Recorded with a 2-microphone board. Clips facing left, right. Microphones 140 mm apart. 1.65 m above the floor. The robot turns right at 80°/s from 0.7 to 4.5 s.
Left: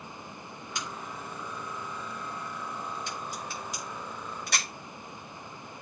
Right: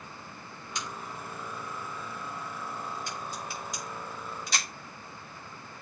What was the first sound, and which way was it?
A crack, 50° left (ahead or behind).